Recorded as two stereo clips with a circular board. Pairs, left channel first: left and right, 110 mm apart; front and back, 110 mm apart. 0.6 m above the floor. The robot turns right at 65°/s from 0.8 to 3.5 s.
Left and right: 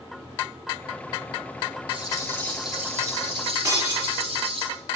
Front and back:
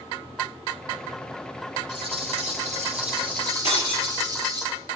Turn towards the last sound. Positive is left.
turn(degrees=-155)